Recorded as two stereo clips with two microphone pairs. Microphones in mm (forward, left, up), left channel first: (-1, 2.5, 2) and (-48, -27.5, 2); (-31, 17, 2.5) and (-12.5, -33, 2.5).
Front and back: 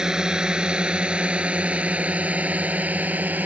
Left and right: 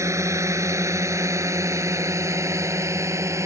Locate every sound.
0.0 s a drone: 70° right; by 3.5 s 85° right